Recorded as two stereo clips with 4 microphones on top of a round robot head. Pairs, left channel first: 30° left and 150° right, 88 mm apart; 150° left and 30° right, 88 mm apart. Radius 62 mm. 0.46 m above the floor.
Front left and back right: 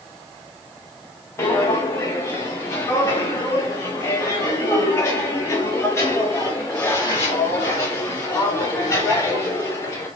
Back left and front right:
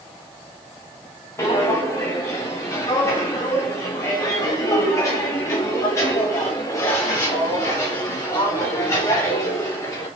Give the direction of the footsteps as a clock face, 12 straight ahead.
9 o'clock.